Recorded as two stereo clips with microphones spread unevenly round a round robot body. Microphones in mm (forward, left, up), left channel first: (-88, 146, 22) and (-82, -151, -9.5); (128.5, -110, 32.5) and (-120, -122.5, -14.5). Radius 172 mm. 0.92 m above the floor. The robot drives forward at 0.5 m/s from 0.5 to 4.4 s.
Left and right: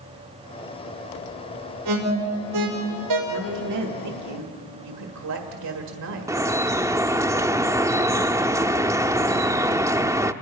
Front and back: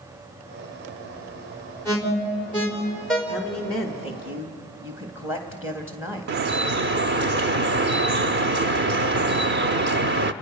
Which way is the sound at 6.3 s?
170° right.